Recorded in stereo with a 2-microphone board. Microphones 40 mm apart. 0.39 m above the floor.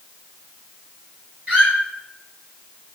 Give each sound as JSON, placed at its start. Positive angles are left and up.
{"t": 1.5, "sound": "a squeak", "side_deg": -40, "distance_m": 2.0}